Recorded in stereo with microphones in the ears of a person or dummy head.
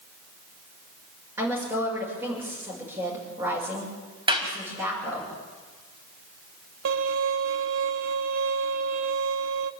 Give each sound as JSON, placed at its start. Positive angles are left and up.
{"t": 1.4, "sound": "a woman speaking", "side_deg": -10, "distance_m": 6.5}
{"t": 4.3, "sound": "a clap", "side_deg": -35, "distance_m": 4.0}
{"t": 6.8, "sound": "a violin", "side_deg": -75, "distance_m": 0.9}